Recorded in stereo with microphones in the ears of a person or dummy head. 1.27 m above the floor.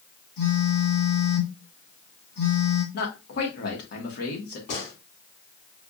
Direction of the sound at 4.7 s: 65° left (ahead or behind).